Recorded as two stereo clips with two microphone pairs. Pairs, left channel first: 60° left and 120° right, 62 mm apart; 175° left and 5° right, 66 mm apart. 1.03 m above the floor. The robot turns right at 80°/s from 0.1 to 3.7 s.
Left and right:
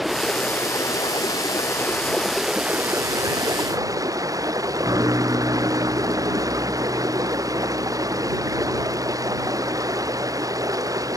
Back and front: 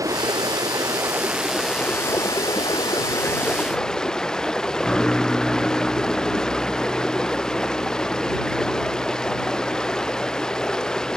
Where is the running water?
30° right; by 11.2 s 105° right.